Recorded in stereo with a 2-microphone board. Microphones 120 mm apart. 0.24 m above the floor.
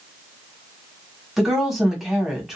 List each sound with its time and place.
1.4 s a woman speaking: 5° right (ahead or behind), 1.4 m